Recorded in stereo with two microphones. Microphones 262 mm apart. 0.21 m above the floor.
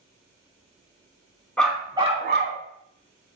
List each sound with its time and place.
1.6 s a dog barking: 5° left (ahead or behind), 0.7 m; by 2.6 s 50° right (ahead or behind), 0.7 m